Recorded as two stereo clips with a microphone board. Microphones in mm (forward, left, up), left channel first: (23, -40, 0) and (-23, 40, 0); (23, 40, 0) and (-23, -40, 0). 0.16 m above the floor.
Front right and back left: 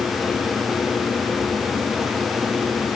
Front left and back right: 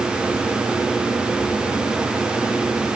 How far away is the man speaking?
I don't hear a man speaking.